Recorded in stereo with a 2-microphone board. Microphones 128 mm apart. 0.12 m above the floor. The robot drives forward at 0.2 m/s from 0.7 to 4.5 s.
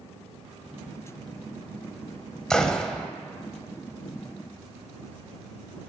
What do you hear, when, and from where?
2.5 s a gunshot: 5° left (ahead or behind), 0.9 m